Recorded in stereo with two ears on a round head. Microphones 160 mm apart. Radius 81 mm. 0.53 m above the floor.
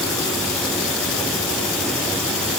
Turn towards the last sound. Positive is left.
No sound to turn to.